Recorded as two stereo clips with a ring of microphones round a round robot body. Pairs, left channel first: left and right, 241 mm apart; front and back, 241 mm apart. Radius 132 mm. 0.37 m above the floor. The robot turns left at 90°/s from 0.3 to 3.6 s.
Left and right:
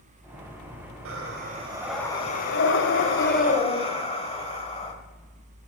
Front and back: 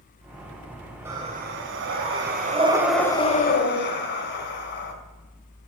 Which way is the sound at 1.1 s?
100° right.